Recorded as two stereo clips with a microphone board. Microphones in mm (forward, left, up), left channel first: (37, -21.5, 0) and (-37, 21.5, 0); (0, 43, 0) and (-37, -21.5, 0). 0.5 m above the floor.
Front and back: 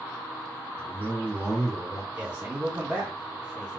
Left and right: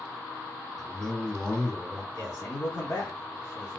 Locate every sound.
0.8 s a man speaking: straight ahead, 1.0 m; by 2.0 s 5° right, 1.4 m
2.1 s a man speaking: 85° left, 1.9 m